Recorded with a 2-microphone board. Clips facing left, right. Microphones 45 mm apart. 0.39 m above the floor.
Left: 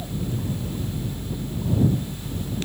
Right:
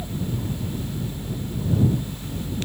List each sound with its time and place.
Only background noise.